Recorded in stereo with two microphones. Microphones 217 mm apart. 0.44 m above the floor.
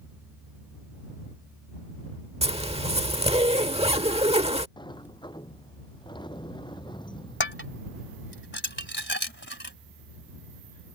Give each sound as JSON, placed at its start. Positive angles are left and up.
{"t": 2.4, "sound": "a zipper", "side_deg": -25}
{"t": 4.8, "sound": "a sliding door", "side_deg": 20}
{"t": 7.4, "sound": "dishes clattering", "side_deg": 55}